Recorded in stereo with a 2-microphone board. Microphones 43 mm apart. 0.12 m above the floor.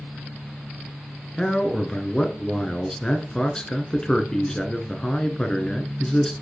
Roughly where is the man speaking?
Centre.